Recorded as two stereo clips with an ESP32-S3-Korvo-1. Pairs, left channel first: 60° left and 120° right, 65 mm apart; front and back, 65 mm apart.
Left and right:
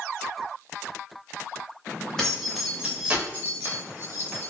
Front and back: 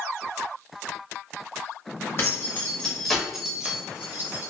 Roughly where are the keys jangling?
Ahead.